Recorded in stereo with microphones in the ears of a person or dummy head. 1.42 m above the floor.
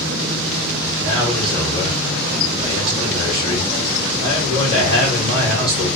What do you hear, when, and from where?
1.0 s a man speaking: 35° right (ahead or behind), 3.5 m